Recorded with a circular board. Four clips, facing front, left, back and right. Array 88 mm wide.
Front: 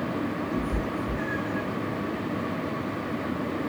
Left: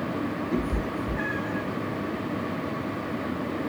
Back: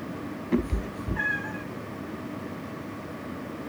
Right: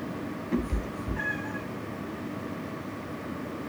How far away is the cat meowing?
About 0.6 m.